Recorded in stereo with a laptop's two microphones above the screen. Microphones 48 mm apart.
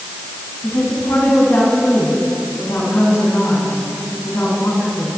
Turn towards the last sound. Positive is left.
turn(degrees=60)  # may be behind; listen again after turning